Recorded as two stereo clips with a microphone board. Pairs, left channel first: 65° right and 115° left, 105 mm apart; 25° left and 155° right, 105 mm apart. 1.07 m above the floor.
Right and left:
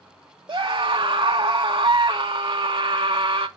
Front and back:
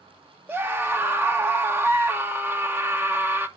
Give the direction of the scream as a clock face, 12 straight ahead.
7 o'clock.